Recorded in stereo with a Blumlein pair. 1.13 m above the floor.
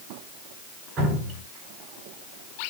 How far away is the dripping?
About 4.5 m.